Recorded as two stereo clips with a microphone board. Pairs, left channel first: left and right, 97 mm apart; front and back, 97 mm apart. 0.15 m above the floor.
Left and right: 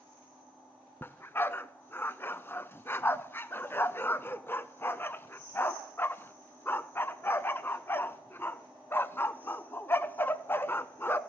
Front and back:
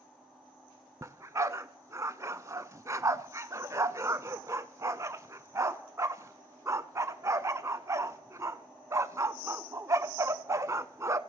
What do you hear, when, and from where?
1.0 s a dog barking: 140° left, 0.5 m